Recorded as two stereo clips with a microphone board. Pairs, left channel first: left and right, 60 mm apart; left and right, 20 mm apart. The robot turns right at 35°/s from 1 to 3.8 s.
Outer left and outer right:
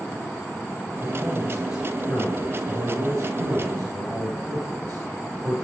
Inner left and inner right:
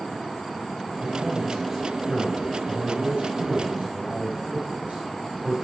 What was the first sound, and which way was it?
A man speaking, 165° left.